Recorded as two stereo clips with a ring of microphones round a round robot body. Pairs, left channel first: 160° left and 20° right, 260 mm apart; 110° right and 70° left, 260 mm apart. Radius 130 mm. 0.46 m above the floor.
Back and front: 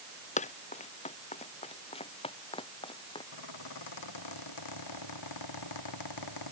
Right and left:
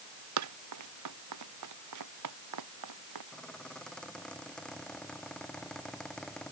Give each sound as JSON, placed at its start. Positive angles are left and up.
{"t": 0.4, "sound": "running footsteps", "azimuth_deg": 95}
{"t": 3.3, "sound": "a squeak", "azimuth_deg": 160}